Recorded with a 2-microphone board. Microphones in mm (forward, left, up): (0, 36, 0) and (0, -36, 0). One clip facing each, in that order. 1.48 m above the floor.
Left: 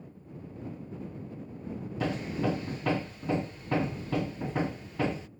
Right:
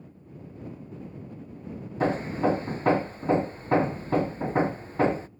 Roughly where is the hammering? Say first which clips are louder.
Right 6 dB; right.